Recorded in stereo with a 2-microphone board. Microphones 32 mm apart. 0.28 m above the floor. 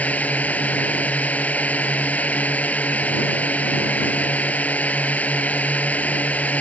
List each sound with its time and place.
0.0 s a drone: 55° left (ahead or behind)